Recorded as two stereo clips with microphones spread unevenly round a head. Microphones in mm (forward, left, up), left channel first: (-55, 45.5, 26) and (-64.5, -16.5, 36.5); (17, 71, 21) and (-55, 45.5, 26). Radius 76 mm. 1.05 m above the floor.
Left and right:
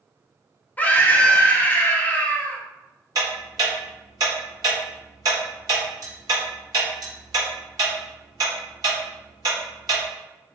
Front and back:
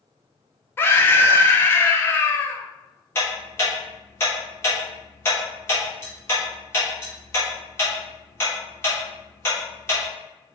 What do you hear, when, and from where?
0.8 s a scream: 55° left, 0.7 m
3.1 s ticking: 45° right, 0.8 m